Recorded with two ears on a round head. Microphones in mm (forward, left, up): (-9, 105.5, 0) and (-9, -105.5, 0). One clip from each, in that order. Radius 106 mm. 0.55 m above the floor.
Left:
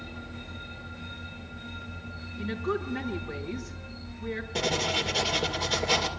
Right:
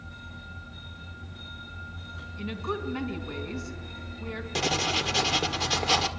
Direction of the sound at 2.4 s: 80° right.